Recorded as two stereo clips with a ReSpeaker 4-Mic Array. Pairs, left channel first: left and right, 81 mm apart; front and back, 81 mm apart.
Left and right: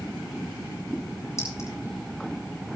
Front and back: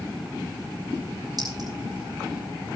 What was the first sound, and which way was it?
A clink, 145° left.